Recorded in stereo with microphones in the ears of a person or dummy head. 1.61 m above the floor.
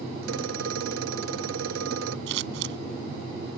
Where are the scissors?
75° right (ahead or behind).